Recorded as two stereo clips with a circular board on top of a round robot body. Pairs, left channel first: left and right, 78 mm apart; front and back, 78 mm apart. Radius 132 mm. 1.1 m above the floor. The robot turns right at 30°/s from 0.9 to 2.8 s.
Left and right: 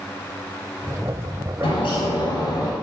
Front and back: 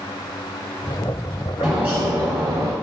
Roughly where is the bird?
Left.